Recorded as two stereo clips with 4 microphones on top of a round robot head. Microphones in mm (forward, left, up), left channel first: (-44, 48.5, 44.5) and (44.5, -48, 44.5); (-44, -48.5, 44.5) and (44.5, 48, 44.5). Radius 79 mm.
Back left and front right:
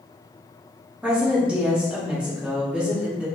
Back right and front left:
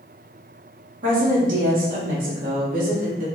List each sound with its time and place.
1.0 s a woman speaking: 35° left, 1.2 m